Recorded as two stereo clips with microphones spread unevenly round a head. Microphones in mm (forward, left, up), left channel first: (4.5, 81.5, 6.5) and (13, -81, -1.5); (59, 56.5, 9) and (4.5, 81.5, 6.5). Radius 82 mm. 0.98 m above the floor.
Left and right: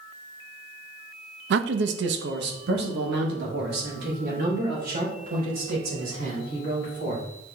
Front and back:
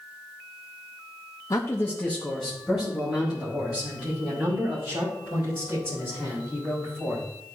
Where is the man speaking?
80° right, 0.5 m; by 7.2 s 130° right, 5 m.